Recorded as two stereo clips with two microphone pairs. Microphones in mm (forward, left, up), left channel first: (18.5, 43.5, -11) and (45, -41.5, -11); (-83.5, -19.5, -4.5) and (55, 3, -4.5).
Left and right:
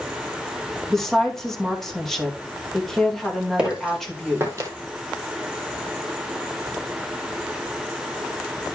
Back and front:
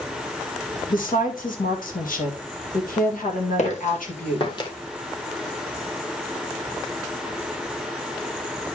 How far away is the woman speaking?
About 2 m.